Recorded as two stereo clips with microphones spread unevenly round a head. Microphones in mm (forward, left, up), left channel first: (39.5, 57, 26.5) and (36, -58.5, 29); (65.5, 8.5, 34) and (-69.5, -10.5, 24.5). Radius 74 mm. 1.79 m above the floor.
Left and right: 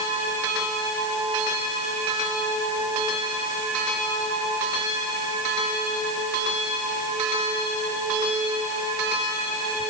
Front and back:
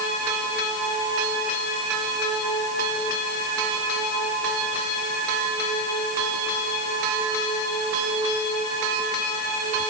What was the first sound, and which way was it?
Only background noise.